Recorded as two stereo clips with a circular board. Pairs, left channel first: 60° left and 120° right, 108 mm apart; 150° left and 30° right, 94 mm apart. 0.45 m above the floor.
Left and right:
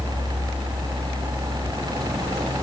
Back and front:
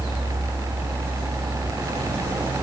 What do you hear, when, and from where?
Only background noise.